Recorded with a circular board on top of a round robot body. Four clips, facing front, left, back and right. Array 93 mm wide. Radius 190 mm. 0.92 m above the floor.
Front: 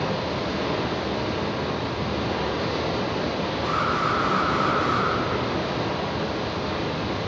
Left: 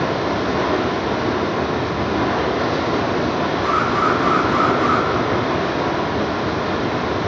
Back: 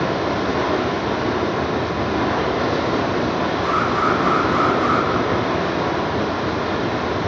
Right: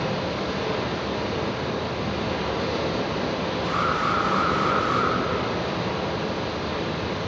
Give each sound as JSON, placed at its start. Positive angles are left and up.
{"t": 0.0, "sound": "running water", "azimuth_deg": 135, "distance_m": 1.6}
{"t": 3.6, "sound": "an alarm", "azimuth_deg": 120, "distance_m": 8.5}